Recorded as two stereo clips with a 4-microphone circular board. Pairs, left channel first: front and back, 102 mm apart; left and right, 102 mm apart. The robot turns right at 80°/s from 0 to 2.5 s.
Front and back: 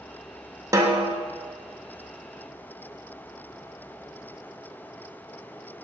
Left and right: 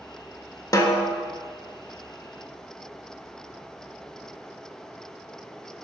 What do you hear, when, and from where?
0.7 s a snare drum: 130° left, 0.6 m; by 1.2 s 170° left, 0.6 m